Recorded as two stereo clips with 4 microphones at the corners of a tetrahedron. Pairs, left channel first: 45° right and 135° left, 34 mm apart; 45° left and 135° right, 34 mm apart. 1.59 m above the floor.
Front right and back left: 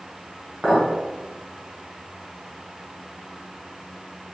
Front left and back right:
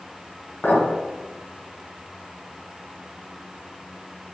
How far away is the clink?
About 1.2 m.